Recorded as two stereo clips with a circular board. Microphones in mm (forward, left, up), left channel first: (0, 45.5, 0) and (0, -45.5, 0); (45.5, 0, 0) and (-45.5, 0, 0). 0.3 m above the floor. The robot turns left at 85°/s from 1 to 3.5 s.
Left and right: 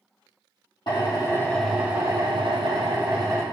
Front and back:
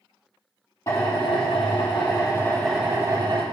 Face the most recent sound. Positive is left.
turn(degrees=-155)